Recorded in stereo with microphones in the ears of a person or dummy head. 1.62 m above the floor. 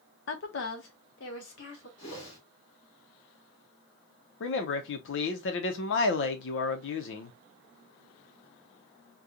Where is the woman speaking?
70° left (ahead or behind), 0.7 m; by 1.9 s 75° left (ahead or behind), 1.8 m.